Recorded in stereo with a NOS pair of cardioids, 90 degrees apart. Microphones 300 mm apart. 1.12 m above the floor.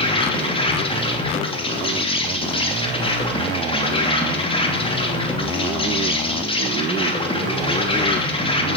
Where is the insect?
20° left, 3 m.